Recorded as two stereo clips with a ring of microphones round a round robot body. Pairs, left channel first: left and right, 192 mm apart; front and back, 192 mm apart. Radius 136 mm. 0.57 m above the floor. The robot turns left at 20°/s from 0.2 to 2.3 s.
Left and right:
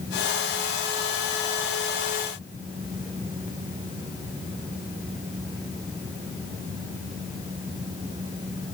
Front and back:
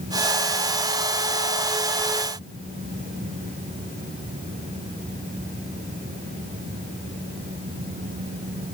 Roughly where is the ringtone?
I don't hear a ringtone.